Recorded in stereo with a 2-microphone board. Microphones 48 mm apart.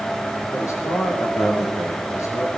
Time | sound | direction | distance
0.5 | a man speaking | 75° left (ahead or behind) | 5.5 m